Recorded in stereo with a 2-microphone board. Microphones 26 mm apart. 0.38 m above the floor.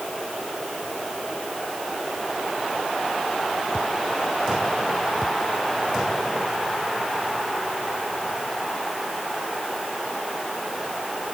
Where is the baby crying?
I don't hear a baby crying.